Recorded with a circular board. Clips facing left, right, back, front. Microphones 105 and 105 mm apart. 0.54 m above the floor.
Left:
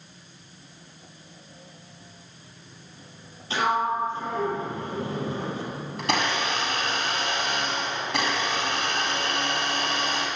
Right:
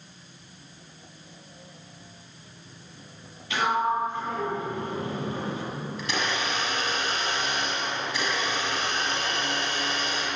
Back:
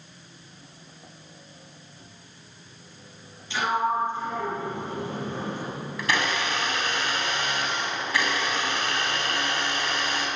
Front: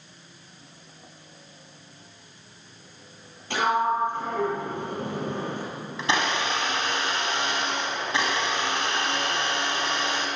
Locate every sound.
3.5 s a sliding door: 30° left, 8.5 m
6.0 s a blender: 65° left, 5.5 m